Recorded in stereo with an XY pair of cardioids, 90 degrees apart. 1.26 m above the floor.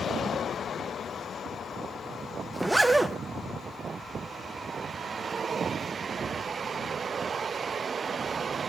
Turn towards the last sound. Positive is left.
turn(degrees=-15)